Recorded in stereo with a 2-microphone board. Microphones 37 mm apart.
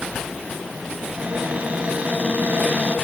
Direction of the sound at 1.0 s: 30° right (ahead or behind).